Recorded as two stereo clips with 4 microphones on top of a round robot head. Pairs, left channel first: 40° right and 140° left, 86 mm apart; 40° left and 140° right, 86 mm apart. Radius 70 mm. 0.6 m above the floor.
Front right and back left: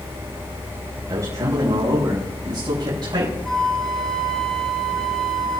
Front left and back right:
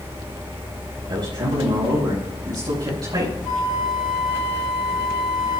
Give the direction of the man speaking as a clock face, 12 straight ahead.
6 o'clock.